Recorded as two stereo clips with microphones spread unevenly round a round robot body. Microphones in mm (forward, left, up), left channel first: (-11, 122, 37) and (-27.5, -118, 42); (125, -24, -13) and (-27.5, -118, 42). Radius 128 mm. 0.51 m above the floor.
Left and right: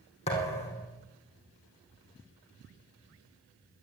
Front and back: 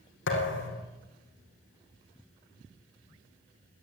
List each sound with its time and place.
0.3 s a thud: 20° left, 4 m